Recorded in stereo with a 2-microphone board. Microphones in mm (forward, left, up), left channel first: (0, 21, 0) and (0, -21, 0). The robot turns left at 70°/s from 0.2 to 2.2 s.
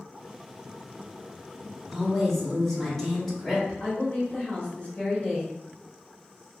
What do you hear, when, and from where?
1.9 s a woman speaking: centre (ahead or behind), 0.9 m; by 3.8 s 10° left (ahead or behind), 0.9 m
3.8 s a woman speaking: 45° left (ahead or behind), 1.4 m